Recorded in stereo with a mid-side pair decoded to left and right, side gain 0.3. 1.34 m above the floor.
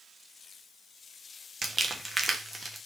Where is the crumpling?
40° right, 1.1 m.